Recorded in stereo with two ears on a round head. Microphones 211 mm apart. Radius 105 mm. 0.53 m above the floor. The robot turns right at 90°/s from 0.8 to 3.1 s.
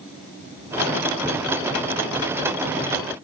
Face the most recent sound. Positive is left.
No sound to turn to.